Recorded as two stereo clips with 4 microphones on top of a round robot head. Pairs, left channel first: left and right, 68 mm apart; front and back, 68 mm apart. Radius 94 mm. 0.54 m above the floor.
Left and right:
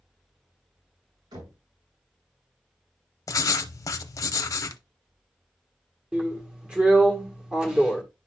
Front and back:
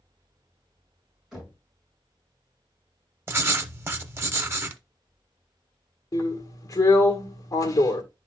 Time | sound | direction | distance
1.3 | knocking | 95° right | 5.5 m
3.3 | writing | 130° left | 0.6 m
6.1 | a drill | 15° right | 1.7 m